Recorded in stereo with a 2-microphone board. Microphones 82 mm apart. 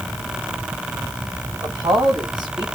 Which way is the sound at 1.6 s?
55° right (ahead or behind).